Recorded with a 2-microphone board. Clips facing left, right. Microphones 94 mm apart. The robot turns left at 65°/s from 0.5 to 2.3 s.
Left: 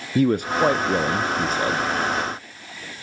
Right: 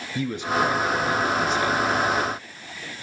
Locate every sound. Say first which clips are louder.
0.1 s a man speaking: left 5 dB; 115° left, 0.6 m; by 1.9 s 30° left, 0.6 m